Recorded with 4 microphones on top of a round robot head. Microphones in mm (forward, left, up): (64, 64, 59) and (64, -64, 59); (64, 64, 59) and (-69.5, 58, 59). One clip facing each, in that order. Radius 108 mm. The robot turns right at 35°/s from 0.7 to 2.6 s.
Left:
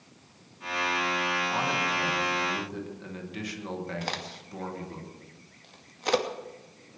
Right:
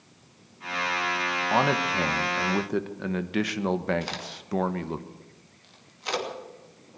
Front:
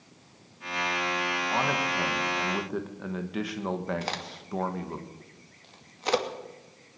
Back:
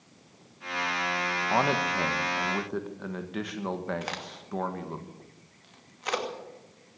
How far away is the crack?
About 2.5 m.